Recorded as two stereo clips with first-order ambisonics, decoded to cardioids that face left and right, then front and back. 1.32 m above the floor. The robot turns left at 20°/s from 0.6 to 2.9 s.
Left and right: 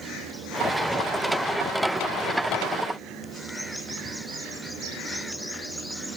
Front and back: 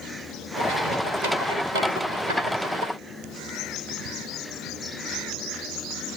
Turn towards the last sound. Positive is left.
No sound to turn to.